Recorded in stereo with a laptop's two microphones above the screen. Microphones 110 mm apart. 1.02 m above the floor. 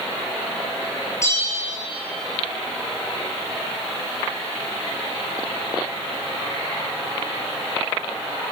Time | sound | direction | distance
1.2 | a bell | 25° left (ahead or behind) | 8.5 m